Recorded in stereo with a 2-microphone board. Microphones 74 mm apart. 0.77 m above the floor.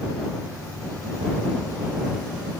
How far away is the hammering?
I don't hear hammering.